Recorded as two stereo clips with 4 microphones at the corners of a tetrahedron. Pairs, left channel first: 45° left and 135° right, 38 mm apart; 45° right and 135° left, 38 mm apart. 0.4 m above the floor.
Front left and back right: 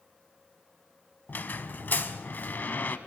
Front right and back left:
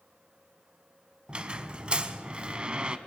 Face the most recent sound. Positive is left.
turn(degrees=75)